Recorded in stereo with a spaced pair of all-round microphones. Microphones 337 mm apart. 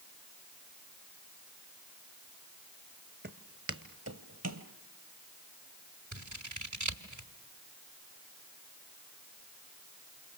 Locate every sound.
3.2 s footsteps: 30° right (ahead or behind), 1.2 m; by 4.7 s 55° right (ahead or behind), 1.7 m
6.1 s scissors: 60° right (ahead or behind), 2 m